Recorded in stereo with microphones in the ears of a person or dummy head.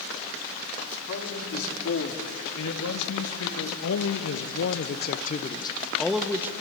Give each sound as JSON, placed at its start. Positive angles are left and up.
{"t": 1.1, "sound": "a man speaking", "side_deg": 70, "distance_m": 4.0}